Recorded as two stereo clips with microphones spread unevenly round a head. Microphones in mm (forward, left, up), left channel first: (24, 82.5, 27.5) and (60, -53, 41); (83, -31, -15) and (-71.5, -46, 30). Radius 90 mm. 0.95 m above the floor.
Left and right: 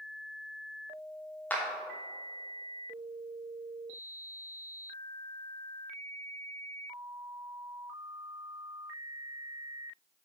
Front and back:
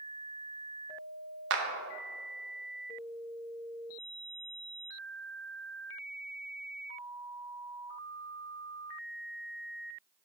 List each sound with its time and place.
1.5 s a clap: straight behind, 0.7 m